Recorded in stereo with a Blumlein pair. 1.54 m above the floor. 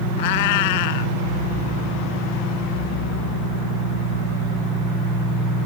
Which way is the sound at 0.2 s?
50° left.